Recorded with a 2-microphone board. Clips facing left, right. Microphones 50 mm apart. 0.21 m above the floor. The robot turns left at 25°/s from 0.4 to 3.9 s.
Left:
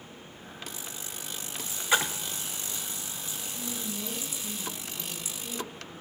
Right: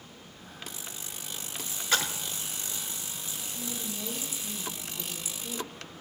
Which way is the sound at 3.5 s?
Centre (ahead or behind).